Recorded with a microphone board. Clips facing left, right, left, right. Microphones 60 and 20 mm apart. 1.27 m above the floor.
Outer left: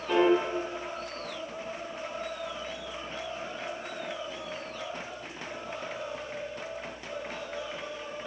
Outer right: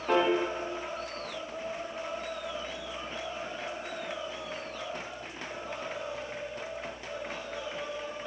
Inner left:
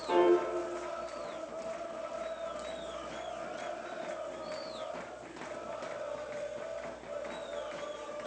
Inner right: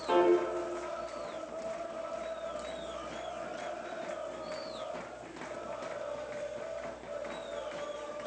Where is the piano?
45° right (ahead or behind), 1.8 m.